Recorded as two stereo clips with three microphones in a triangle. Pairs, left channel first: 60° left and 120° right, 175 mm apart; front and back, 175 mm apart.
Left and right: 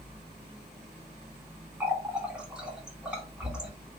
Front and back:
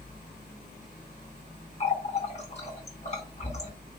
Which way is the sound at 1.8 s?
35° right.